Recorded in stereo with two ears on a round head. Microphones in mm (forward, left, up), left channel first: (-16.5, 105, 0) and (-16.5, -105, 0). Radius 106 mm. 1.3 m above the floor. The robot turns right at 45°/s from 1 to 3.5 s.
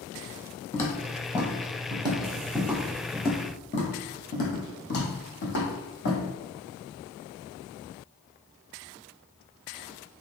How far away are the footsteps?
About 1.7 m.